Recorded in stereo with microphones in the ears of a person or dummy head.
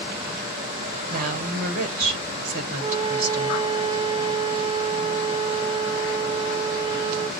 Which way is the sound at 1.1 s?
50° right (ahead or behind).